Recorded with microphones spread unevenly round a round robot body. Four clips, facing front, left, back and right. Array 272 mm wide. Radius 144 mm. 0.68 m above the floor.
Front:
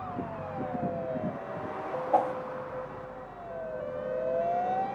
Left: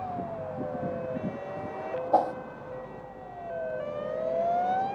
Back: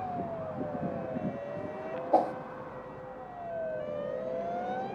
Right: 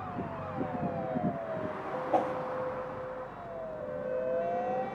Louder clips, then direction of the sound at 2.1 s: Left 5 dB, even; 175° right.